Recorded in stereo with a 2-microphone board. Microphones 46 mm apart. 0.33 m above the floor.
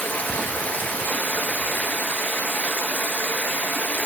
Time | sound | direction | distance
0.0 | running water | 40° left (ahead or behind) | 2 m